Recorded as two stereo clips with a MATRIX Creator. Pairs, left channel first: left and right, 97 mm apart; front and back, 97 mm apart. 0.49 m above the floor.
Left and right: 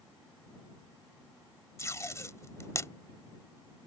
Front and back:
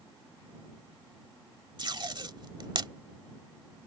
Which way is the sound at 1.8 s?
145° left.